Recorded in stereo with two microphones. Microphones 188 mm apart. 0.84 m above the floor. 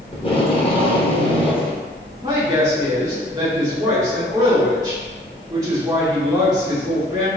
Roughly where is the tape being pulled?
Left.